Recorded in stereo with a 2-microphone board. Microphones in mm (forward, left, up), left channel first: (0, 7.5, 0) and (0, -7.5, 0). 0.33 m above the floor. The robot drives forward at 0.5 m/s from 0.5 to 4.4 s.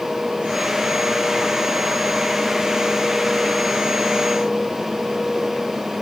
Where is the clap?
No clap in this recording.